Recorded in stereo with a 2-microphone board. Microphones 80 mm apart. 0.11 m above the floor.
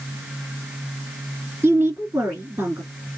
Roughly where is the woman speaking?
Right.